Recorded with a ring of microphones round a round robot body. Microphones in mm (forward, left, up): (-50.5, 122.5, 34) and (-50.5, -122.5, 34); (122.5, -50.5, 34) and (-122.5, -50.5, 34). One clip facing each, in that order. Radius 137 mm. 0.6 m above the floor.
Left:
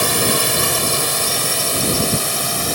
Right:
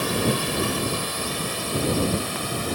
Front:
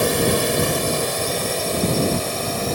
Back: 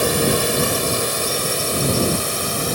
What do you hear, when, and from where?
0.0 s a drone: 95° left; by 2.8 s 105° left